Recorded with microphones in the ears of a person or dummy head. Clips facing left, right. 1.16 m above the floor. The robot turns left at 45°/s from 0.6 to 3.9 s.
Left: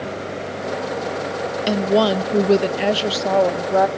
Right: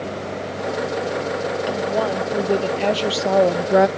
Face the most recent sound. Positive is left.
turn(degrees=-35)